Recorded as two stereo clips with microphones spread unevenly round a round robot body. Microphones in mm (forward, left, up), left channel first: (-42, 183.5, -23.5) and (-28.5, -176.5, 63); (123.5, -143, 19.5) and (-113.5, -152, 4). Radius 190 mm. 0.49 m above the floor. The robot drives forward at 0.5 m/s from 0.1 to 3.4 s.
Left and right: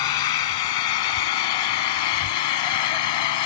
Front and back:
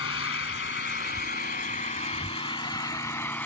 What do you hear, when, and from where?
0.0 s an engine running: 60° left; by 3.5 s 85° left